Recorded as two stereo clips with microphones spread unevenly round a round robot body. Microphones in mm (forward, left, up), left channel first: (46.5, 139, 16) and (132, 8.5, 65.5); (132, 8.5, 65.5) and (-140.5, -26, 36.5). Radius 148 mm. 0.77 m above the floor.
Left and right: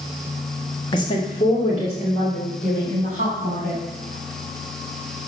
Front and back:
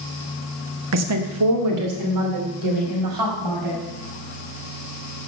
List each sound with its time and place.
0.9 s a woman speaking: 175° left, 0.8 m; by 3.8 s straight behind, 4.5 m